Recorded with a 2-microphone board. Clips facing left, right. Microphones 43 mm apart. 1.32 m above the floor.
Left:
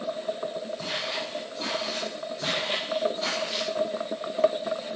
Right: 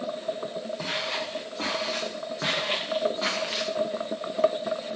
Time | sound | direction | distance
0.8 | footsteps | 45° right (ahead or behind) | 6.5 m